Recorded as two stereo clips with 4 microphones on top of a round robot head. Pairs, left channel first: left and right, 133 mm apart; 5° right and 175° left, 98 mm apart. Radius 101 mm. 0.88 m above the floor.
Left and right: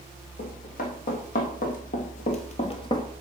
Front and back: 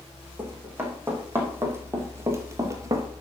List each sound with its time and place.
0.4 s running footsteps: 105° left, 4 m; by 3.0 s 140° left, 1.0 m